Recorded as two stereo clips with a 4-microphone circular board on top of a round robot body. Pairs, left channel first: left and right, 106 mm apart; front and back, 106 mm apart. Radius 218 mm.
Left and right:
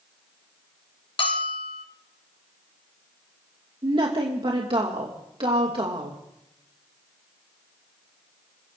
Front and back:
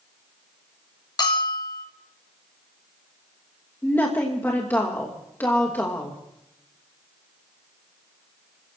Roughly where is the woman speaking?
Right.